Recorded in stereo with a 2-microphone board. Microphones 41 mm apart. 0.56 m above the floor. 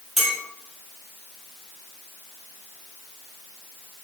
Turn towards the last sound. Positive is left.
turn(degrees=-5)  # may be behind; listen again after turning